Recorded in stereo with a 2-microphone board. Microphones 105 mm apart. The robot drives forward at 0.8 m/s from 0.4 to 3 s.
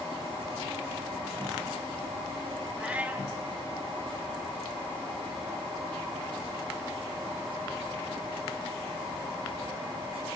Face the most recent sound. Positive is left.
turn(degrees=-15)  # may be behind; listen again after turning